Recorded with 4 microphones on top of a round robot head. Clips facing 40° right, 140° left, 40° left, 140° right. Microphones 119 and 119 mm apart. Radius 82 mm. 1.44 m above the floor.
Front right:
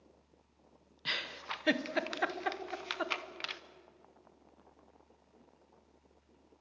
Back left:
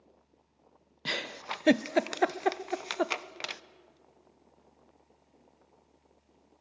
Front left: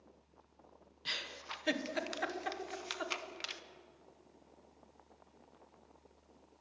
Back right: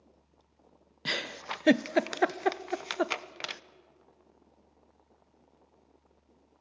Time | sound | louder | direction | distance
1.1 | a giggle | back left 6 dB, back right 10 dB | 175° right | 0.6 m